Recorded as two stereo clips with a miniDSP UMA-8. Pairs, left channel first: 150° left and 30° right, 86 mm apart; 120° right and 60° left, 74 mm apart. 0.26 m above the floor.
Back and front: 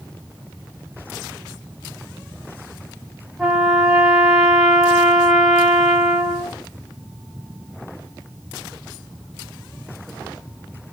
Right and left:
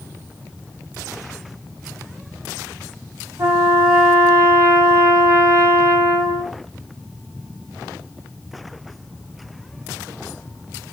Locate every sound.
3.4 s a trumpet: 60° left, 1.0 m